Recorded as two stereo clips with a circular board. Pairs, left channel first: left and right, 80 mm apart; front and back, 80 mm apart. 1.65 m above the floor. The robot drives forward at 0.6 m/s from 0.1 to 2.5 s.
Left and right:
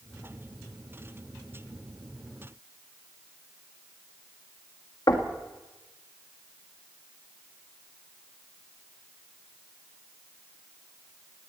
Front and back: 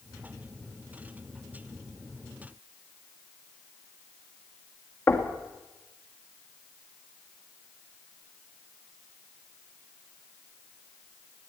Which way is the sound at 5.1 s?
55° left.